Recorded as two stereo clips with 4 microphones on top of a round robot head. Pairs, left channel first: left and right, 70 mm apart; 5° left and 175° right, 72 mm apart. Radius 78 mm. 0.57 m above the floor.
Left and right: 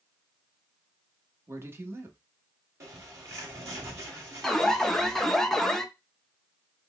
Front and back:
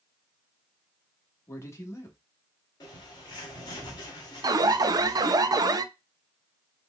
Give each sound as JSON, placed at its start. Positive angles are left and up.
{"t": 1.5, "sound": "a man speaking", "azimuth_deg": -40, "distance_m": 1.1}
{"t": 2.8, "sound": "a bird", "azimuth_deg": -40, "distance_m": 1.8}
{"t": 4.4, "sound": "an alarm", "azimuth_deg": 175, "distance_m": 0.5}